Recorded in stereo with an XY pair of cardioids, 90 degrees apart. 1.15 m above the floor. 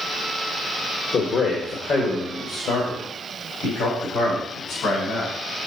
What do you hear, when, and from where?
1.1 s a man speaking: 60° left, 1.4 m; by 5.3 s 75° left, 4.5 m